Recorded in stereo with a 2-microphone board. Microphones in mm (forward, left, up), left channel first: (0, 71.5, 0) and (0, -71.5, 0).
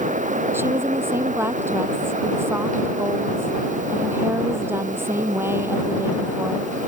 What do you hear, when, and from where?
0.5 s a woman speaking: 15° right (ahead or behind)